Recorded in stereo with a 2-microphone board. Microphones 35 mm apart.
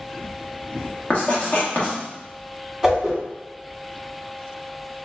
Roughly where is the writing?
Left.